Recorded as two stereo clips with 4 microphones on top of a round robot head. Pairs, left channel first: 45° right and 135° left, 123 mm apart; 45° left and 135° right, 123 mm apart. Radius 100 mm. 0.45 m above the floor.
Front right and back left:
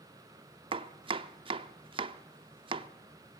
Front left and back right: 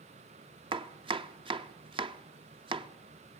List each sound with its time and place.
0.7 s chopping: straight behind, 1.0 m